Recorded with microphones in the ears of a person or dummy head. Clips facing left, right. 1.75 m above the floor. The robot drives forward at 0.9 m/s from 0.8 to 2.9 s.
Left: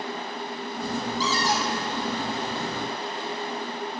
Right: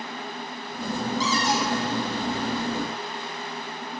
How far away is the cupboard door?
About 3 m.